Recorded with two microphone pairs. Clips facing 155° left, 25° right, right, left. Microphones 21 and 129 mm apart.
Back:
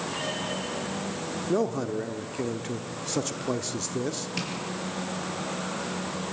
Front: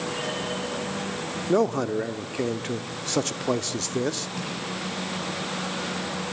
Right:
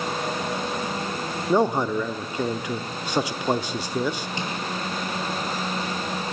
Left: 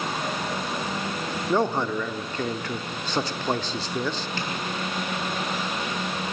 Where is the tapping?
160° right, 6 m.